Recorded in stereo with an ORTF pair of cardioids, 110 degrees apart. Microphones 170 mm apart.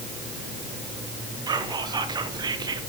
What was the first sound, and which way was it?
Whispering, 25° right.